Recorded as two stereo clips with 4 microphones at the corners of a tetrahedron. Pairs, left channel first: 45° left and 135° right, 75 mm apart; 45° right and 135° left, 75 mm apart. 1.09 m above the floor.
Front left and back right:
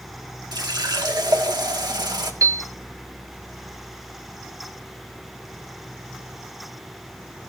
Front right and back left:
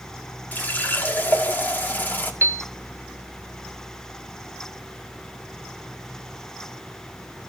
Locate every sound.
0.5 s a running tap: 110° right, 1.6 m
2.4 s a piano: 170° right, 0.7 m